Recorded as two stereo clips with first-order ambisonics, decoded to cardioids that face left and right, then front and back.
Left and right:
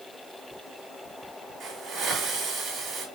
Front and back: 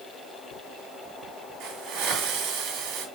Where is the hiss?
160° right, 4.5 m.